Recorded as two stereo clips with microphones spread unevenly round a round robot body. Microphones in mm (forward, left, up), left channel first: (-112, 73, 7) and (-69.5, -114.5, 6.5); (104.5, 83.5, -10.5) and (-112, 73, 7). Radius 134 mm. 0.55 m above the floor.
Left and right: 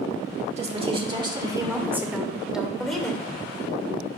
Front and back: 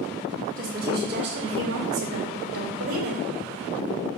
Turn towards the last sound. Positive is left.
turn(degrees=-170)